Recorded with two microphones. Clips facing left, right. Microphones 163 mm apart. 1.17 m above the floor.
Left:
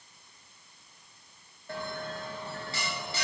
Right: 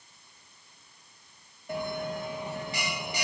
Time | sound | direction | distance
1.7 | a bell | 15° right (ahead or behind) | 0.8 m